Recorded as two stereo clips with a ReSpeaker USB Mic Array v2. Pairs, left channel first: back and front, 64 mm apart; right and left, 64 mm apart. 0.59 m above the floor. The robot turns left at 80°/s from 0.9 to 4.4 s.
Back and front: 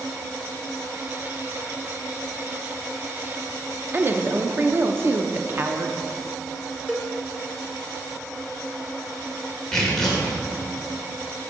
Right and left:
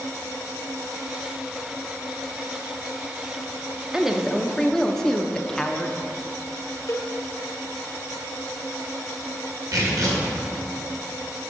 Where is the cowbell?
70° right, 1.7 m.